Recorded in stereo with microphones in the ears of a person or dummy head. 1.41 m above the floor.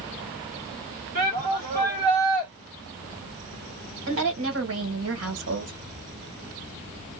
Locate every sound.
1.1 s a shout: 45° right (ahead or behind), 1.6 m
4.1 s a woman speaking: 70° right (ahead or behind), 1.4 m